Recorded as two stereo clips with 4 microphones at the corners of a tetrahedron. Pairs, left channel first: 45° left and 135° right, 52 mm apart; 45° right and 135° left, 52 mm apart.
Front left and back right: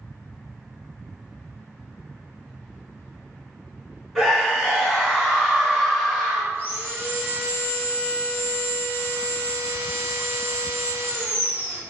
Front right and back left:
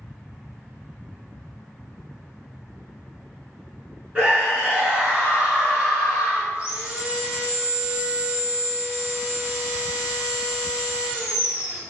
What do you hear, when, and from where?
4.2 s a scream: 145° left, 1.1 m
6.5 s sawing: 170° right, 0.9 m